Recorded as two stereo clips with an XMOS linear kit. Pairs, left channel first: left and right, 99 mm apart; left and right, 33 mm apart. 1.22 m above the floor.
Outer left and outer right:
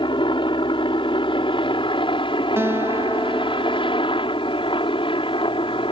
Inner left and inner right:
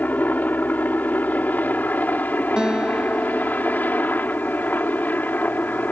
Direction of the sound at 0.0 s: 60° left (ahead or behind).